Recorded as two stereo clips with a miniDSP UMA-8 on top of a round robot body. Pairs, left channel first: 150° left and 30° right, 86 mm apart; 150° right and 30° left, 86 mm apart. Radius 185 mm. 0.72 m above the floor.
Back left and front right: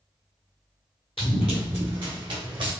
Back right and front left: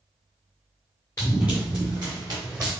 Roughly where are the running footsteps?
Behind left.